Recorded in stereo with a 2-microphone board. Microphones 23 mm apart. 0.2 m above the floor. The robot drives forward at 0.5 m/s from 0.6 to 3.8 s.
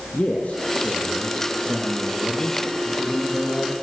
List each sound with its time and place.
0.1 s a man speaking: 60° left (ahead or behind), 5 m; by 3.7 s 45° left (ahead or behind), 5.5 m